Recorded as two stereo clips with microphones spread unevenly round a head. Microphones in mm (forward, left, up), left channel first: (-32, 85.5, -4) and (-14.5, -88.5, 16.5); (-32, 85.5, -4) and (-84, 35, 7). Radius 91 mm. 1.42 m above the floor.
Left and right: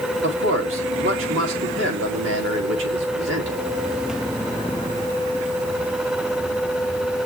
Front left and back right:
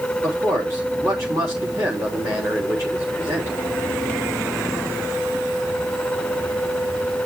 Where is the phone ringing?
No phone ringing in this recording.